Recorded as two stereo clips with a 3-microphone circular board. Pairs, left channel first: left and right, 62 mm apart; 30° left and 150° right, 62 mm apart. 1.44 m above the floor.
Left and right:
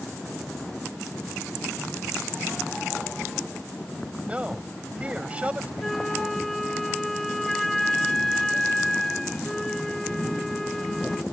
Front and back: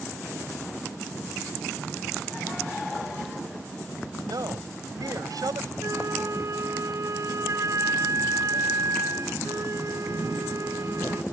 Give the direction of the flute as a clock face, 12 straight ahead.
6 o'clock.